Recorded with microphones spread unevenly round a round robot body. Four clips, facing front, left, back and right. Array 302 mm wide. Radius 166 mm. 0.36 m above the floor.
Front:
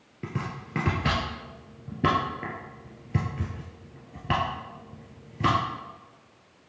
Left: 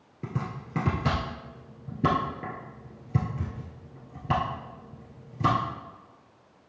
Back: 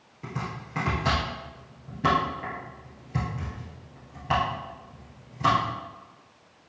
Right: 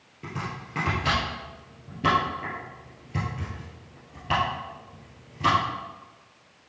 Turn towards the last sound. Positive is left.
turn(degrees=35)